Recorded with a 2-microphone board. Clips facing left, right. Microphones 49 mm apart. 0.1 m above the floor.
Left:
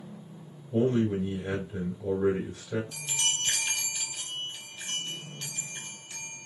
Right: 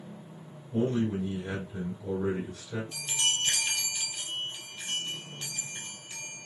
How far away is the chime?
About 1.3 m.